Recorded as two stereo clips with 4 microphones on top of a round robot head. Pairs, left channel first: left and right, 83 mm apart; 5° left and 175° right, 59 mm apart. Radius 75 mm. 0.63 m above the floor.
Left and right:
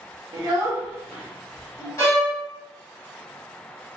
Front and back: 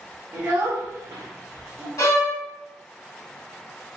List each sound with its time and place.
0.3 s a child speaking: 115° right, 0.7 m; by 1.9 s 125° left, 1.0 m
2.0 s a violin: 35° left, 1.7 m